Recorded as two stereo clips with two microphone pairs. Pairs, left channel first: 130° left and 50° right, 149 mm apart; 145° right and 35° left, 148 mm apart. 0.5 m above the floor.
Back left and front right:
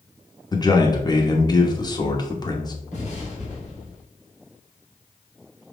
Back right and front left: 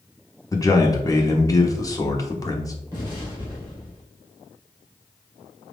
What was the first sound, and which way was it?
A man speaking, 170° left.